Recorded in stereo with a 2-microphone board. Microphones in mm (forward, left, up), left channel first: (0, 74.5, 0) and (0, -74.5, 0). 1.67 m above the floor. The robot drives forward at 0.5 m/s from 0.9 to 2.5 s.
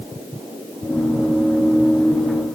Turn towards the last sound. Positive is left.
No sound to turn to.